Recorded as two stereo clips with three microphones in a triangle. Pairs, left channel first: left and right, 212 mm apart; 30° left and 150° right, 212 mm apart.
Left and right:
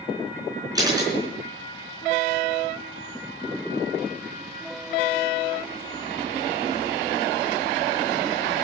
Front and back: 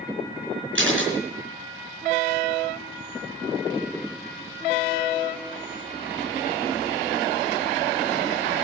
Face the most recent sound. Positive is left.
turn(degrees=-160)